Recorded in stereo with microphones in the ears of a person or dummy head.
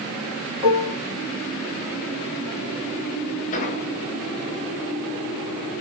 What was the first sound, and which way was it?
Dishes clattering, 30° right (ahead or behind).